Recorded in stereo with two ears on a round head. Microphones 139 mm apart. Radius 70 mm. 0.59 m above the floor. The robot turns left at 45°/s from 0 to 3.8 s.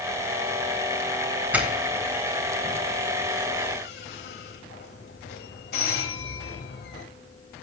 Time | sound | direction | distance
1.5 | a doorbell | 10° right (ahead or behind) | 4 m